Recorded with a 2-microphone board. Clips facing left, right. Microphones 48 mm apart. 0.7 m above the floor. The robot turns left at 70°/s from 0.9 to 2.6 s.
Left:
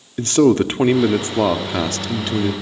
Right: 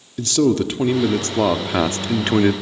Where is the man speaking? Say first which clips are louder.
Left 3 dB; 45° left, 1.5 m; by 2.5 s 70° right, 1.5 m.